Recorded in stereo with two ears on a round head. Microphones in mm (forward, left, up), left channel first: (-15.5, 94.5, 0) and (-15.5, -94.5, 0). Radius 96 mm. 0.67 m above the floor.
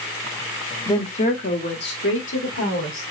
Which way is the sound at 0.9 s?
20° left (ahead or behind).